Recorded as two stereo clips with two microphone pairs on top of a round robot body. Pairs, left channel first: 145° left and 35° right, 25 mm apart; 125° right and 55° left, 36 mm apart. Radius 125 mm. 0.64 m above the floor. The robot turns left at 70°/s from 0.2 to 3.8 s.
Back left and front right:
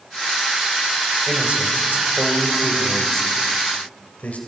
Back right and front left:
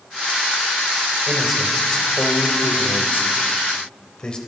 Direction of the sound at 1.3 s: 5° right.